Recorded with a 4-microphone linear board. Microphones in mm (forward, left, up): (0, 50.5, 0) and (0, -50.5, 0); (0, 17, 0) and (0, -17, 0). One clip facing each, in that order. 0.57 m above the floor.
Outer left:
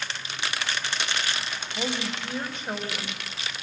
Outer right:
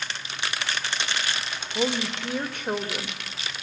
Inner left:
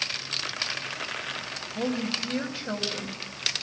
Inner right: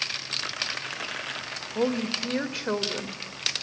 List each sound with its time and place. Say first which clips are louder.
1.8 s a woman speaking: outer right 5 dB, inner right 3 dB; 60° right (ahead or behind), 2.5 m